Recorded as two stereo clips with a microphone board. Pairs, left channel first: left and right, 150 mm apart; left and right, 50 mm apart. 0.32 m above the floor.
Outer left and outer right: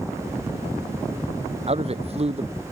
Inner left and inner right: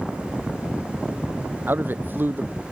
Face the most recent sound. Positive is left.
turn(degrees=-45)  # may be behind; listen again after turning